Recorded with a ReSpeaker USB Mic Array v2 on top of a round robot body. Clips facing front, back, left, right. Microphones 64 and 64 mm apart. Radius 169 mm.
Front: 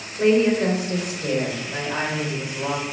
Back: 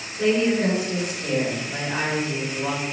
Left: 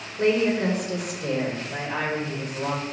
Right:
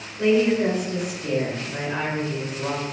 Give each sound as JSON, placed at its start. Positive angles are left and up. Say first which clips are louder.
{"t": 0.2, "sound": "a woman speaking", "louder": "front 3 dB, right 2 dB", "azimuth_deg": 55, "distance_m": 1.2}